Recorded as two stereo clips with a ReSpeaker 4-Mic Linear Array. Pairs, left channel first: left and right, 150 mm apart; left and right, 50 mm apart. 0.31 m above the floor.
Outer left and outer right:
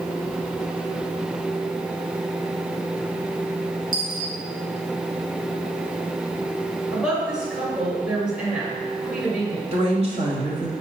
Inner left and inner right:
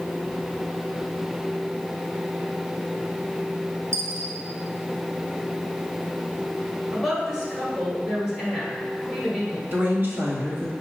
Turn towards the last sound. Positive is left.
turn(degrees=-45)  # may be behind; listen again after turning